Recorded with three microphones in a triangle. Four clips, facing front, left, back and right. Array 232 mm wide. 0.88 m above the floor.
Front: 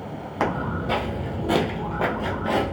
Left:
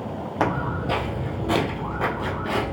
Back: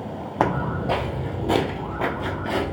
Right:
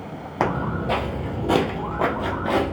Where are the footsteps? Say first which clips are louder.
Right 1 dB, back 2 dB; 165° right, 1.2 m; by 2.7 s 60° right, 1.1 m.